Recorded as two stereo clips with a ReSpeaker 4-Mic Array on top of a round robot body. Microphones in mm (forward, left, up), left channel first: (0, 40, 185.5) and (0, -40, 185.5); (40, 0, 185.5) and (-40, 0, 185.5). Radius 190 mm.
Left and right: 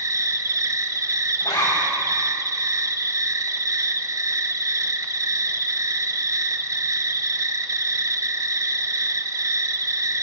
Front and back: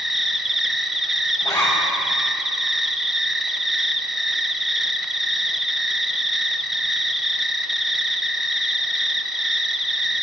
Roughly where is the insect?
Right.